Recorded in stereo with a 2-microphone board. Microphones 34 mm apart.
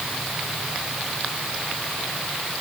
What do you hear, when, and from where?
Only background noise.